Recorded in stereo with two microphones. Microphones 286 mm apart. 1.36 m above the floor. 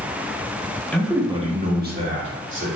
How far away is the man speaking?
About 0.9 m.